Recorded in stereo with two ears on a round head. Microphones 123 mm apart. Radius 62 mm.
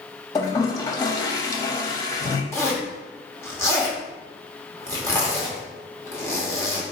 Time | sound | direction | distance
0.3 | a toilet flushing | 25° left (ahead or behind) | 0.5 m
2.5 | a zipper | 15° left (ahead or behind) | 1.0 m